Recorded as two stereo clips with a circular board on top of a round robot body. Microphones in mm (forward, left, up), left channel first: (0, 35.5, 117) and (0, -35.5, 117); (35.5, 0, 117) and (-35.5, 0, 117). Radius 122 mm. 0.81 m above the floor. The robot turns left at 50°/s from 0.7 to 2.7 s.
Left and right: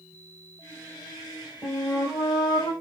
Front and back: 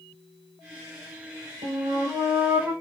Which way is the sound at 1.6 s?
170° left.